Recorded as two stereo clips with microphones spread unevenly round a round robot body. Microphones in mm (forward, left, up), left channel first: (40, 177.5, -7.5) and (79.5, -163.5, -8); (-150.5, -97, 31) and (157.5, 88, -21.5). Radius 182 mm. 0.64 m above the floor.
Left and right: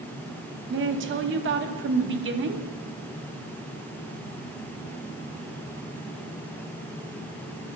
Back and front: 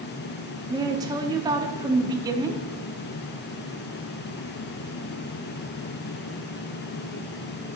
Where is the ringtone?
No ringtone in this recording.